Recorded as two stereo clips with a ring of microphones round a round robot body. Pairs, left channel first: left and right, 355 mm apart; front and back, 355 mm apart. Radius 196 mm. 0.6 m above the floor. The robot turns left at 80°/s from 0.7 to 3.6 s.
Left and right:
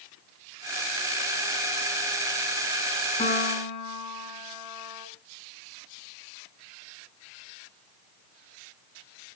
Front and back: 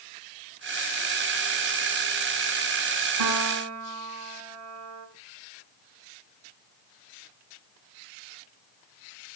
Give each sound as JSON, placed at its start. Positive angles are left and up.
{"t": 3.2, "sound": "a piano", "azimuth_deg": 165, "distance_m": 6.5}